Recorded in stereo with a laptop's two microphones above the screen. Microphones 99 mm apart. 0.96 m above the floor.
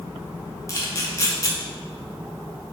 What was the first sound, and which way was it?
A camera shutter, 35° left (ahead or behind).